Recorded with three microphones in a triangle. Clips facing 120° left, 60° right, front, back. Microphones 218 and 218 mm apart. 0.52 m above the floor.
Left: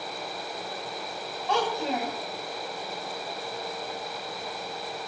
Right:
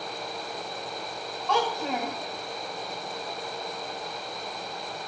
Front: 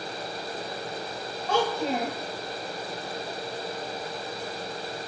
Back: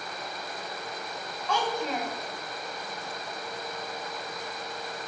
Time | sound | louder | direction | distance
1.5 | a child speaking | even, front 4 dB | 50° left | 2.5 m